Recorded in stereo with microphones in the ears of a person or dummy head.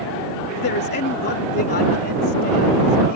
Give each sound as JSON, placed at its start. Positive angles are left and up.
{"t": 0.5, "sound": "a man speaking", "side_deg": 55}